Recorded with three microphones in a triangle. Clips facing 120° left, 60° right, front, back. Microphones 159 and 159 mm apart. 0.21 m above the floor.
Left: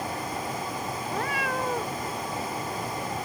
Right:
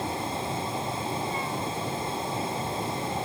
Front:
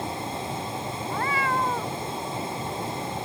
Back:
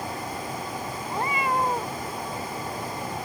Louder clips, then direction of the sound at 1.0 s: Left 1 dB, back 1 dB; 110° left.